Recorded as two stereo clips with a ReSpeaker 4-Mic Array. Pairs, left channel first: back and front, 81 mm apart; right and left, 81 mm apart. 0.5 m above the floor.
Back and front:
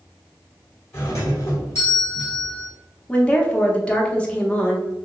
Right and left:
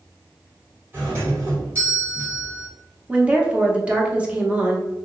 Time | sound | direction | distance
0.9 | a doorbell | 140° left | 1.8 m
3.1 | a woman speaking | 130° left | 0.8 m